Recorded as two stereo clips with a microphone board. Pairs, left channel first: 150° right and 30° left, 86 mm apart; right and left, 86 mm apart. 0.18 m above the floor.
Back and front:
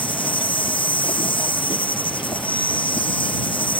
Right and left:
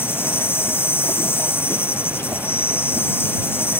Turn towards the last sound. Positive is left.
turn(degrees=-150)